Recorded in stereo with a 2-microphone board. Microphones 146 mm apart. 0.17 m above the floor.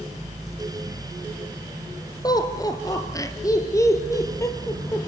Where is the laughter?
25° left (ahead or behind), 3 m; by 5.1 s 20° left (ahead or behind), 4.5 m.